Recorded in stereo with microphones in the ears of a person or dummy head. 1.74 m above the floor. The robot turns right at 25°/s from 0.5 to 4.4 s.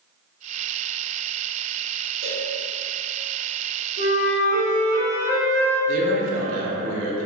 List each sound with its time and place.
2.2 s a cowbell: 55° right (ahead or behind), 1.0 m; by 2.5 s 60° right (ahead or behind), 1.0 m
4.0 s a flute: 70° left (ahead or behind), 0.7 m; by 5.8 s 60° left (ahead or behind), 0.7 m
5.9 s a man speaking: 40° right (ahead or behind), 0.6 m